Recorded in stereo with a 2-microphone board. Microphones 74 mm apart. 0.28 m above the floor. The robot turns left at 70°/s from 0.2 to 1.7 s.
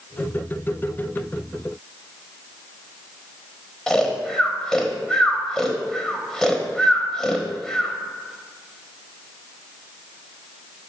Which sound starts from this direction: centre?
Snoring, at 3.9 s.